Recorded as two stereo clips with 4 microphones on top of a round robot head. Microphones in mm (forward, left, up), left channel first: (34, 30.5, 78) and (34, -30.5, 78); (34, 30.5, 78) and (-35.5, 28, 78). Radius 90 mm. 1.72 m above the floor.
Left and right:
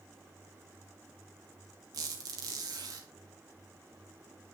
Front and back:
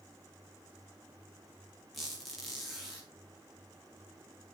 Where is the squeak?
85° right, 2.5 m.